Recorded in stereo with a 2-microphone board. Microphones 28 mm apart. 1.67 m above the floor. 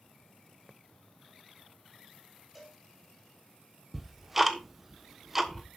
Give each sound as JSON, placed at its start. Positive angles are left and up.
{"t": 2.5, "sound": "a cowbell", "side_deg": -5, "distance_m": 5.5}
{"t": 3.9, "sound": "ticking", "side_deg": -10, "distance_m": 1.3}